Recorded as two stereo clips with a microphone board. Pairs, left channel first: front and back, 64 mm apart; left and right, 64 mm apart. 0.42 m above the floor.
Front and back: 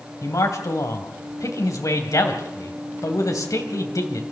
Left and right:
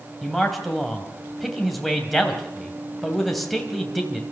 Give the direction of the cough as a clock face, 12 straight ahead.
I don't hear a cough.